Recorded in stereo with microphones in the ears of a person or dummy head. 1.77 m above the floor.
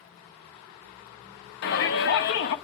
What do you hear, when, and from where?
1.6 s a shout: 60° left (ahead or behind), 1.4 m